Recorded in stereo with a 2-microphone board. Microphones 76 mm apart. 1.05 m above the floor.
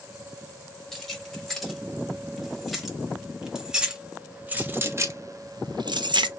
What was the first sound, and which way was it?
Keys jangling, 5° left (ahead or behind).